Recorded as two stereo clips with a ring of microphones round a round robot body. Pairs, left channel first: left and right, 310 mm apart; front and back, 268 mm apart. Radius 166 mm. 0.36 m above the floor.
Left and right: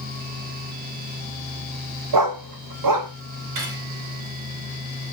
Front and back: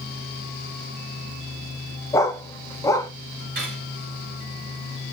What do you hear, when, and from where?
2.1 s a dog barking: 80° right, 0.9 m
3.5 s cutlery clinking: 120° right, 3 m